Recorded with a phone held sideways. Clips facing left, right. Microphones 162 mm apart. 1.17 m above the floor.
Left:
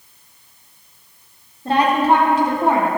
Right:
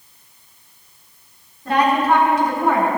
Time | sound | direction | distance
1.6 | a woman speaking | 30° left (ahead or behind) | 3 m